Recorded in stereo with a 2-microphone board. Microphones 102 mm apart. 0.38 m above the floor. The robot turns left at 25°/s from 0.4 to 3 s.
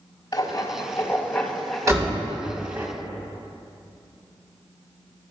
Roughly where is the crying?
I don't hear crying.